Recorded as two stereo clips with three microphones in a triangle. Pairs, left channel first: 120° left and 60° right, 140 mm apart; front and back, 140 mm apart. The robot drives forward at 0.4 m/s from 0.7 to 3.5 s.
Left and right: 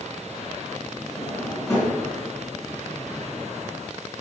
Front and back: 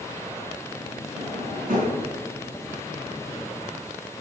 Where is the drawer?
170° right, 3.5 m.